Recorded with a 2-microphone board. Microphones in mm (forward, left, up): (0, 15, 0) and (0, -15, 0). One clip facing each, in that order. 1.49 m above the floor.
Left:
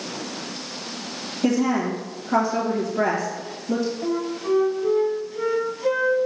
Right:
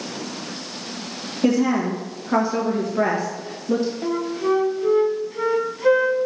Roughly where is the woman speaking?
Right.